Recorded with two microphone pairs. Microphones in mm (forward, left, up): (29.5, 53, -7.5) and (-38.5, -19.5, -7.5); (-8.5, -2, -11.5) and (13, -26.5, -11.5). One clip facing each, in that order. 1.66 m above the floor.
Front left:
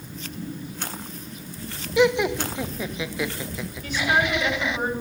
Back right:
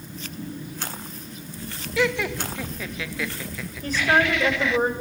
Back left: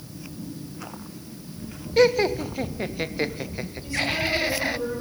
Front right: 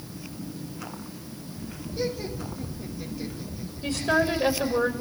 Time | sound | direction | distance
2.0 | laughter | 115° left | 0.8 m
3.8 | a woman speaking | 85° right | 7 m